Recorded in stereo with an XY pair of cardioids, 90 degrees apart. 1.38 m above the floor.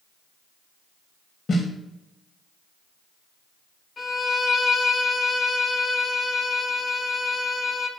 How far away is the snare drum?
About 1.9 m.